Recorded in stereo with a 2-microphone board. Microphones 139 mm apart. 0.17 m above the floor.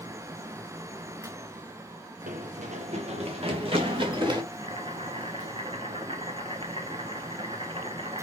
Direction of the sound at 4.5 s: 40° right (ahead or behind).